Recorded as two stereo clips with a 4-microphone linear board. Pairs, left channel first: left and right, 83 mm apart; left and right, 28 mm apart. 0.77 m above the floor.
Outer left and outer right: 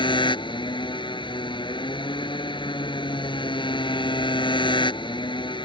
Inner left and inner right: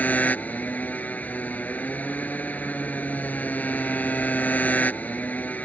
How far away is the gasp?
I don't hear a gasp.